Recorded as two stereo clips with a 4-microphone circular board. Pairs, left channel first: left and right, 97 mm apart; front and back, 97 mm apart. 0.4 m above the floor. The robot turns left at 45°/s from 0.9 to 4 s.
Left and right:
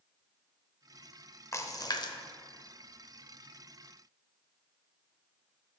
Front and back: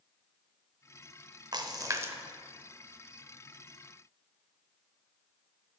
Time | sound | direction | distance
1.5 | a splash | 145° left | 0.6 m